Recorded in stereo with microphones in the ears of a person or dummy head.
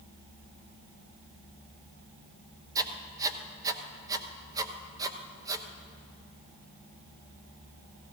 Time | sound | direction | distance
2.8 | writing | 20° right (ahead or behind) | 0.9 m